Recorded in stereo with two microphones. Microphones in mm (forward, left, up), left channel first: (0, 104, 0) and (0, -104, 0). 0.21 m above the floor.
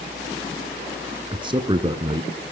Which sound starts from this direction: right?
A man speaking, at 1.3 s.